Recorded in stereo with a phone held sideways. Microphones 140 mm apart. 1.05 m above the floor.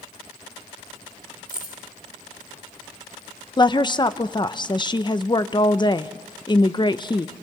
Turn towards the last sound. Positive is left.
turn(degrees=30)  # may be behind; listen again after turning